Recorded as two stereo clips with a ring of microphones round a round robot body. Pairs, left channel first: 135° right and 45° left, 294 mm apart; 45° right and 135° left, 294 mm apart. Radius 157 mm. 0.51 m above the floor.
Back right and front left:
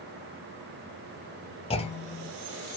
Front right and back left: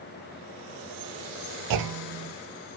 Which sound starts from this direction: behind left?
A clunk, at 1.7 s.